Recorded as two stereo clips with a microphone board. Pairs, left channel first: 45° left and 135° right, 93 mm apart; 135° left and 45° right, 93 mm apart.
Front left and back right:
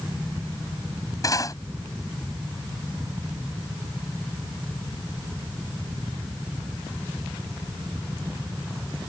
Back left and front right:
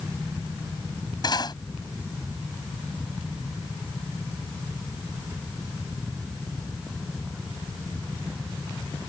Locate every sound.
1.2 s cutlery clinking: 95° left